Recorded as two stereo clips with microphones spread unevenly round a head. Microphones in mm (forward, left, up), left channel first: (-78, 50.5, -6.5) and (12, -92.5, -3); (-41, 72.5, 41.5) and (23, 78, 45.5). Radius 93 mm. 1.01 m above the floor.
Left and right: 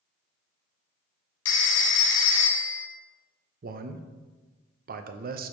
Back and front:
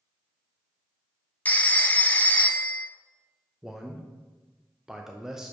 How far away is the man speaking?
About 0.6 m.